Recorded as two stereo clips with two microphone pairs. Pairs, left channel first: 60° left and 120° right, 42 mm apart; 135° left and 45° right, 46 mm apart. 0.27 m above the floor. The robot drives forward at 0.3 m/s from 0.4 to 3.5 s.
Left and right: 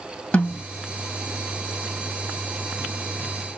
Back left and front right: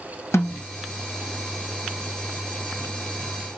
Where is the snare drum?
110° left, 2 m; by 0.6 s 115° left, 2 m.